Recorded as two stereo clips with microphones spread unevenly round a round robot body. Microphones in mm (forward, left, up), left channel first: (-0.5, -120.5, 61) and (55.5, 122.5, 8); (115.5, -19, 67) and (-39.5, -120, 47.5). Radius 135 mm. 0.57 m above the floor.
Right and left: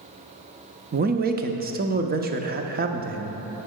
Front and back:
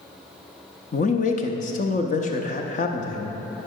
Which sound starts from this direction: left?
A man speaking, at 0.9 s.